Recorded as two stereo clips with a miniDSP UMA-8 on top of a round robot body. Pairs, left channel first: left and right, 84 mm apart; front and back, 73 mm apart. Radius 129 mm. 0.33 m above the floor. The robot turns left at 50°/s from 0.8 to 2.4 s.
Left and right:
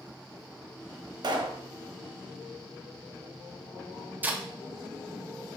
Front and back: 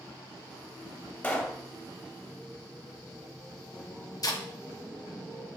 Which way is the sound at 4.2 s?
25° right.